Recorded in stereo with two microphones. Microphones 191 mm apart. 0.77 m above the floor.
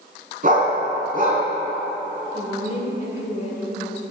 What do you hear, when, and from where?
0.4 s a dog barking: 45° right (ahead or behind), 2.5 m
2.3 s a woman speaking: 35° left (ahead or behind), 2.5 m